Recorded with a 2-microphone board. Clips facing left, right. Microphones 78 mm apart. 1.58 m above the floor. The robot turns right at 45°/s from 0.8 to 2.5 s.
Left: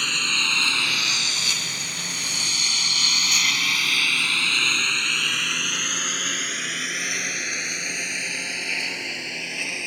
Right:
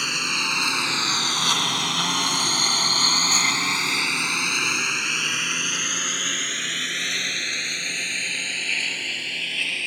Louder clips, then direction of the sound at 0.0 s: Even; 10° right (ahead or behind).